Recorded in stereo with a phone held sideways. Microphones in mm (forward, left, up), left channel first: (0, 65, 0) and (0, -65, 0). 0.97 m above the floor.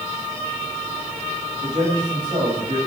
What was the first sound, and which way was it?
A man speaking, 65° right (ahead or behind).